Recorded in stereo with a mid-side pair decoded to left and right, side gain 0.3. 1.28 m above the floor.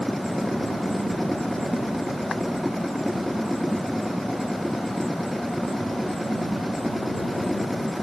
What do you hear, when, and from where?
0.0 s a machine running: 10° left